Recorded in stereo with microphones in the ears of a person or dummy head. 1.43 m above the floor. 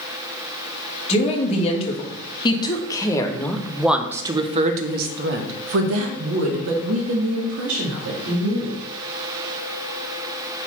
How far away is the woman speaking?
About 1.9 m.